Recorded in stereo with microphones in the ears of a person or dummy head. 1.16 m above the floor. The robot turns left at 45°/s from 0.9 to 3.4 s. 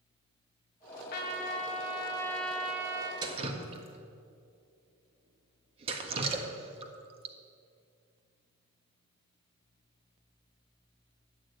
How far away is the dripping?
About 1.5 m.